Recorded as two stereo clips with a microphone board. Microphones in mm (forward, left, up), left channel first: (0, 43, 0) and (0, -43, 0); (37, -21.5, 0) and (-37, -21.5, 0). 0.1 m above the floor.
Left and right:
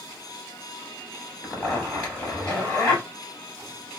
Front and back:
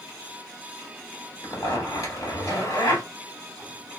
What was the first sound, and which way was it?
A zipper, 5° left.